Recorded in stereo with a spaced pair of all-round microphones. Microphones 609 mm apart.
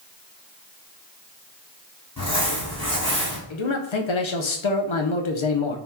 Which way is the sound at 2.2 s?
30° left (ahead or behind).